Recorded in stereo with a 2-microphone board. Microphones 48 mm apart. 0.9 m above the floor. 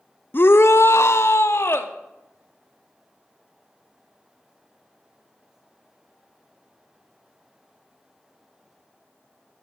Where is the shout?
45° left (ahead or behind), 0.6 m; by 1.9 s 60° left (ahead or behind), 1.6 m.